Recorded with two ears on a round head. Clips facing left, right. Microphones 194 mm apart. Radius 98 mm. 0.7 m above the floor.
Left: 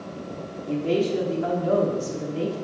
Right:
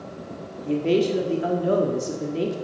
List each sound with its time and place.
0.6 s a man speaking: 30° right (ahead or behind), 1.3 m